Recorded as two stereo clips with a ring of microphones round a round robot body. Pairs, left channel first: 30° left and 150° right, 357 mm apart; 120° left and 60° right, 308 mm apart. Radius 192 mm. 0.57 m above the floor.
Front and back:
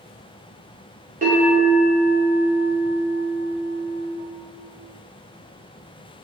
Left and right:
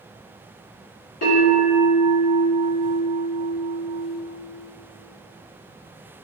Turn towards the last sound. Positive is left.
turn(degrees=145)